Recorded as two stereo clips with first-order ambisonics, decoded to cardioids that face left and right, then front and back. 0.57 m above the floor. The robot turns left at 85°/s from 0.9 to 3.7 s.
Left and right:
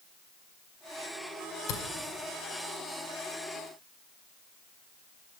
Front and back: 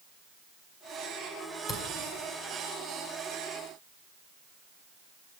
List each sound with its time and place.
1.7 s a camera shutter: 65° left, 1.9 m; by 1.8 s 55° left, 1.9 m